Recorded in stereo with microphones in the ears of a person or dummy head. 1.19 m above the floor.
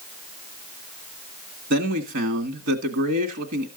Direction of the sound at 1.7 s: 70° right (ahead or behind).